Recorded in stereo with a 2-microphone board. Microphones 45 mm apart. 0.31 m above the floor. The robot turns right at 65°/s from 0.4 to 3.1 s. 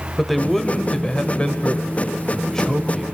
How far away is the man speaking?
About 0.9 m.